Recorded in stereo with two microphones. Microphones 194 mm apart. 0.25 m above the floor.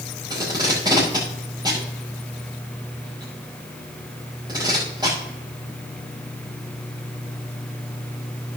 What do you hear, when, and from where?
0.3 s tape being pulled: 20° right (ahead or behind), 5.5 m